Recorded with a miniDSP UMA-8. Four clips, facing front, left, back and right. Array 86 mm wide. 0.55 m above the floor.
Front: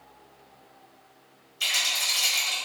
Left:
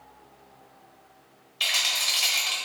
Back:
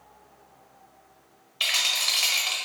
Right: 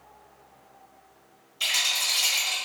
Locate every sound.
1.6 s a rattle: 150° left, 1.2 m